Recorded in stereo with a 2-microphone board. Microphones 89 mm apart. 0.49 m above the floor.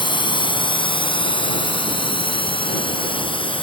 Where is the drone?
65° left (ahead or behind); by 3.6 s 75° left (ahead or behind).